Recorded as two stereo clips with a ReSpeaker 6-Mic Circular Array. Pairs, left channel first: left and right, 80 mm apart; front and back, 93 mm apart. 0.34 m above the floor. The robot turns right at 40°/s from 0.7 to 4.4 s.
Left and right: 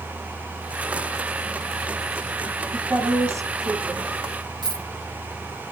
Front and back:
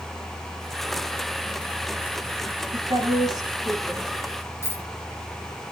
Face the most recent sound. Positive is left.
turn(degrees=-65)